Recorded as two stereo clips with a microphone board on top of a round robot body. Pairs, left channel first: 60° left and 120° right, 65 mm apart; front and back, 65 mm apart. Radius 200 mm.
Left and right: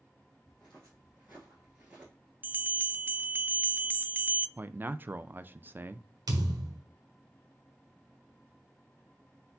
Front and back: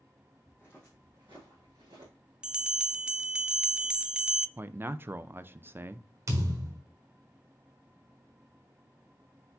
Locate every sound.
0.5 s footsteps: 35° right, 0.7 m; by 2.1 s 165° left, 1.0 m
2.4 s a bell: 120° right, 0.6 m
4.6 s a man speaking: 155° right, 0.6 m
6.3 s a thud: 140° right, 1.2 m